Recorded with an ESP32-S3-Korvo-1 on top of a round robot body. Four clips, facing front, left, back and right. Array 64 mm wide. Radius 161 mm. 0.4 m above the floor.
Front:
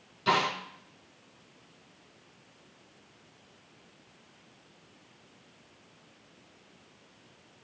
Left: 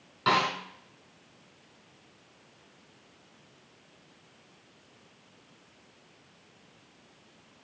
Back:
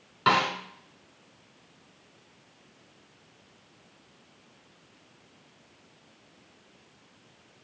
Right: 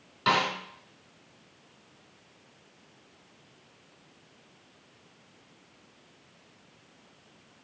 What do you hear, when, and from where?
0.3 s a snare drum: 175° left, 4.5 m